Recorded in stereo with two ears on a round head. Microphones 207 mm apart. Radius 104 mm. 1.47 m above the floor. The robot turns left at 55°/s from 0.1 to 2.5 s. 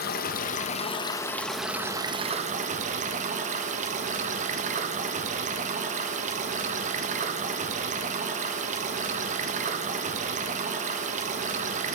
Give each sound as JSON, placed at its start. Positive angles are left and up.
{"t": 0.0, "sound": "running water", "azimuth_deg": 80, "distance_m": 0.8}